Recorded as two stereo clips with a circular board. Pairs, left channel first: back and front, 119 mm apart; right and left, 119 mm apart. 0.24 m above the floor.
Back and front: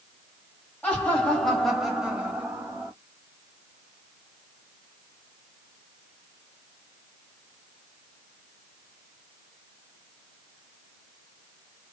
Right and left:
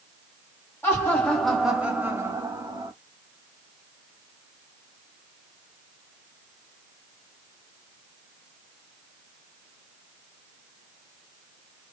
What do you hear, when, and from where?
0.8 s laughter: 120° right, 1.1 m; by 2.9 s 65° left, 1.3 m